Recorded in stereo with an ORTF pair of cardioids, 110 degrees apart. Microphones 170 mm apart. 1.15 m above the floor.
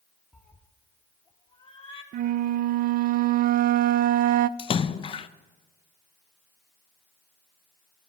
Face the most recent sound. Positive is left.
turn(degrees=30)